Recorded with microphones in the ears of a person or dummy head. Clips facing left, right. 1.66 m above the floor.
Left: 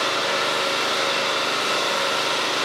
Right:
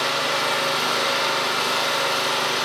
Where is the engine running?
60° right (ahead or behind), 3 m.